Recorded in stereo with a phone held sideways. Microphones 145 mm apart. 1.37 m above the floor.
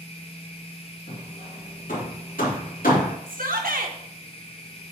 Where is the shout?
75° right (ahead or behind), 1.3 m.